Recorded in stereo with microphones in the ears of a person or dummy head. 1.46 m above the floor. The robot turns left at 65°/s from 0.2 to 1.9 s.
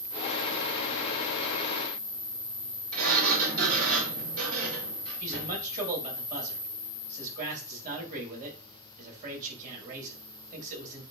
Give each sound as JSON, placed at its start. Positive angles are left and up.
{"t": 2.9, "sound": "a sliding door", "side_deg": -75, "distance_m": 3.0}
{"t": 5.2, "sound": "a man speaking", "side_deg": -45, "distance_m": 3.0}